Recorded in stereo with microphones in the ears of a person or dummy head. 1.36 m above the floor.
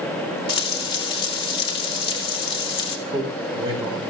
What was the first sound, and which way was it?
Frying, 30° left (ahead or behind).